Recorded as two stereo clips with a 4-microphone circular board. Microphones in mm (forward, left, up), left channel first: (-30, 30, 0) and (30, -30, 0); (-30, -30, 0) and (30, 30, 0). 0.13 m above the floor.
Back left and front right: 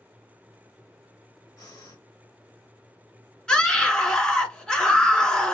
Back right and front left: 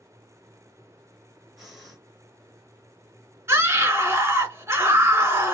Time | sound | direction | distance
1.6 | breathing | 135° left | 2 m
3.5 | a scream | 65° left | 1.8 m